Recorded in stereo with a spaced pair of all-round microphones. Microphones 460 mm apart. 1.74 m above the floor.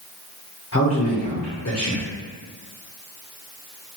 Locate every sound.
0.7 s a man speaking: 35° left (ahead or behind), 0.6 m